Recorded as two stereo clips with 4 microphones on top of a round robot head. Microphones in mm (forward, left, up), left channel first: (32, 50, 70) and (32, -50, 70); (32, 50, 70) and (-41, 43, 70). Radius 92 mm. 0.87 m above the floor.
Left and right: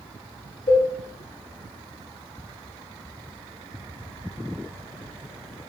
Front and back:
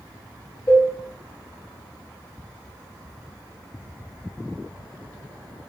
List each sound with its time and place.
0.7 s a cowbell: 70° left, 2.5 m